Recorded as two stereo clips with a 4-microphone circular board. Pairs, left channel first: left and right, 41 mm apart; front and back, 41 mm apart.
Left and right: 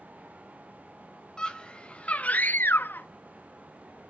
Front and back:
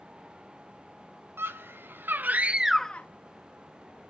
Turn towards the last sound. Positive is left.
turn(degrees=45)